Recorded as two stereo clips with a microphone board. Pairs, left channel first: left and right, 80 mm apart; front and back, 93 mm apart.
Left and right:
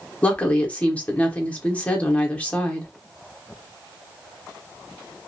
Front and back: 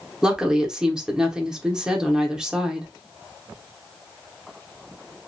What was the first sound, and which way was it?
A woman speaking, 115° left.